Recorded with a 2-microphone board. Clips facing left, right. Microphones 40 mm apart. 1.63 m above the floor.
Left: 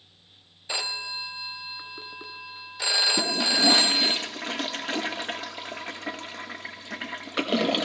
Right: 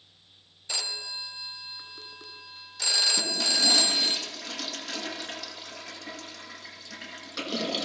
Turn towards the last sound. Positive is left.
turn(degrees=40)  # may be behind; listen again after turning